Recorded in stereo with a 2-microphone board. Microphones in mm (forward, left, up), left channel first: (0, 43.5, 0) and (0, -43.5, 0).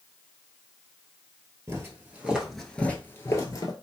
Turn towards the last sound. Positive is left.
turn(degrees=45)  # may be behind; listen again after turning